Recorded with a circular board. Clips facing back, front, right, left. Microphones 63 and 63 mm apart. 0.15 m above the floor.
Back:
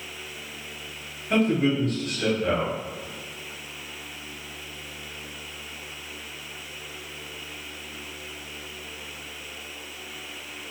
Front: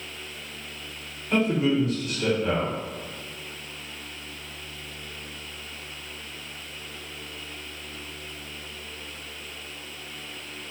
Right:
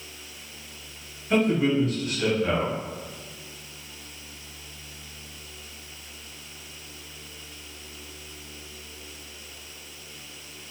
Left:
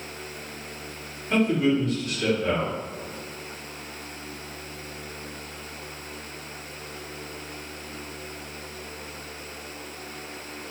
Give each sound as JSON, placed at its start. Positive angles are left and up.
{"t": 1.3, "sound": "a man speaking", "azimuth_deg": -170, "distance_m": 1.7}